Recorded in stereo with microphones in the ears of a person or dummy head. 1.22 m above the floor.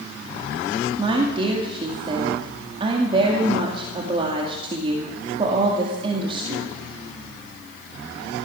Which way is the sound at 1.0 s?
30° right (ahead or behind).